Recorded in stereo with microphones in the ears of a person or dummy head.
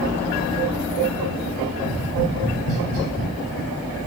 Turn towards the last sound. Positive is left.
turn(degrees=-80)